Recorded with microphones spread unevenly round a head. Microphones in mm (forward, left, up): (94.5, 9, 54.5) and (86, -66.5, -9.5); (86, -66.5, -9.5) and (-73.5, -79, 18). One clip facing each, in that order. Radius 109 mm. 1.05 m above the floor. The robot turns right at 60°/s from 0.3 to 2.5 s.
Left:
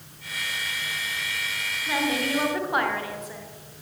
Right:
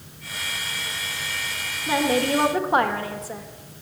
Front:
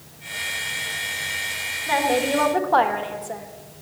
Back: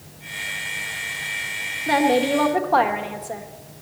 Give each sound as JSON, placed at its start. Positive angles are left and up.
{"t": 1.9, "sound": "a woman speaking", "azimuth_deg": -130, "distance_m": 1.5}